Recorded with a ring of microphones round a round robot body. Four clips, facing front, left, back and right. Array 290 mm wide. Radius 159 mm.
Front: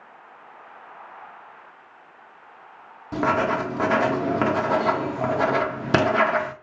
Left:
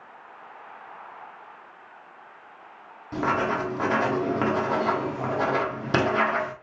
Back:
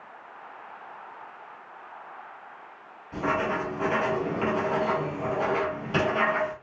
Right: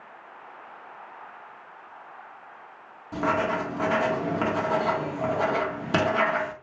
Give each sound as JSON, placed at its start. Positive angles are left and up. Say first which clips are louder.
{"t": 3.1, "sound": "writing", "louder": "even, front 5 dB", "azimuth_deg": 5, "distance_m": 1.0}